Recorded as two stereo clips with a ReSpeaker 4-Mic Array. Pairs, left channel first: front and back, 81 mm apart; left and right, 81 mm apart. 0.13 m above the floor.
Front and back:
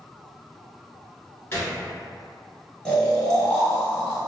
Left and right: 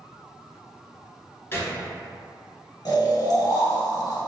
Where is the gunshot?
45° left, 0.8 m.